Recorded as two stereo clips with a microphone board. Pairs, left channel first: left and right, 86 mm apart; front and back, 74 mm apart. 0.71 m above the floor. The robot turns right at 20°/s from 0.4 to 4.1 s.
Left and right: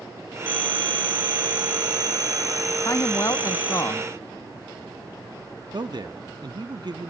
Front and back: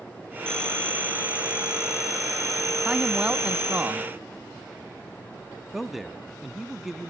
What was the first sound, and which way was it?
A phone ringing, 80° right.